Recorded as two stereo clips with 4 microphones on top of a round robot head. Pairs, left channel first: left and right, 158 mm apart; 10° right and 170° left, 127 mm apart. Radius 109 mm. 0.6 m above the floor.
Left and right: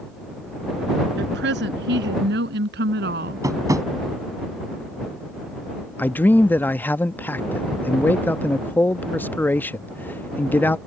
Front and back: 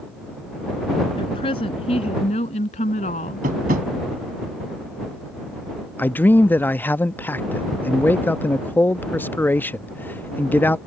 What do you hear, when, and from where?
1.2 s a woman speaking: 75° right; by 3.5 s 55° right
3.4 s tapping: 160° right
6.0 s a man speaking: 35° left